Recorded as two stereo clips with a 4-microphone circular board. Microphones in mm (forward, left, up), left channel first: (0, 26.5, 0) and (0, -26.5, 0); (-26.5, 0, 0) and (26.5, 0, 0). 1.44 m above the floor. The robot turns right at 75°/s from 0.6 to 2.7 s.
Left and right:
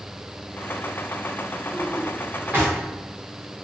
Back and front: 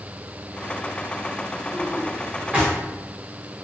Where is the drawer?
125° right, 1.5 m; by 2.7 s 50° right, 1.5 m.